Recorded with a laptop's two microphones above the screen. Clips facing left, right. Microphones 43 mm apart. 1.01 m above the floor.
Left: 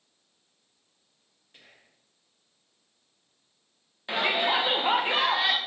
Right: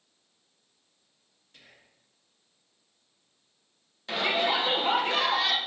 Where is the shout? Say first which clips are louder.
Left 1 dB; 20° left (ahead or behind), 0.8 m.